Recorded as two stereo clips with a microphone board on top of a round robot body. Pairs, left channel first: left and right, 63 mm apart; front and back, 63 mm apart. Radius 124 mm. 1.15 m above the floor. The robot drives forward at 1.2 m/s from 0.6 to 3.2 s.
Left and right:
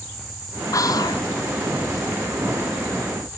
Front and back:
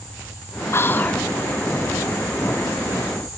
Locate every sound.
0.7 s whispering: 50° left, 1.5 m; by 1.2 s 75° left, 1.2 m